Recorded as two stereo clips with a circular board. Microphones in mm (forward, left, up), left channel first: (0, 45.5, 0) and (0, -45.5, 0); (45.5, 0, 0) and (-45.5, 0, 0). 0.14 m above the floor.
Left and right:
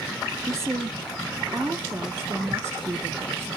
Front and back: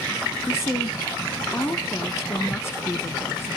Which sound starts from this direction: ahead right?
A woman speaking, at 0.5 s.